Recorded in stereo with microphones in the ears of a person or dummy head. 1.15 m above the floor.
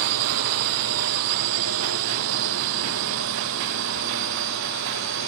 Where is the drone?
90° right; by 5.3 s 80° right.